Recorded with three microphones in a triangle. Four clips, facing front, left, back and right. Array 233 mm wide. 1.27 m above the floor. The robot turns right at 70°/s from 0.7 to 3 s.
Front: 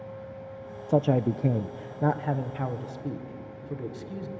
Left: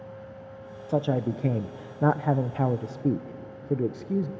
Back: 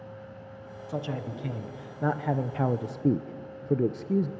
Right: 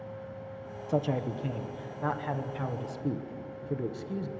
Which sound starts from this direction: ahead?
A man speaking, at 0.9 s.